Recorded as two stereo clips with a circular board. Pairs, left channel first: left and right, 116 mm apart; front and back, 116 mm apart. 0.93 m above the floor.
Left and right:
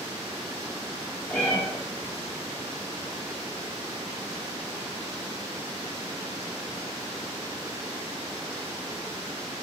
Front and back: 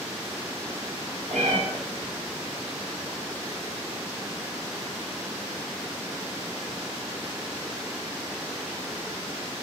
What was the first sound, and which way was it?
A cat meowing, 170° left.